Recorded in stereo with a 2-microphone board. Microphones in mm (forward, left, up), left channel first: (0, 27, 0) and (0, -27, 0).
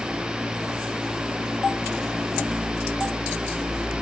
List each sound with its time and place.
Only background noise.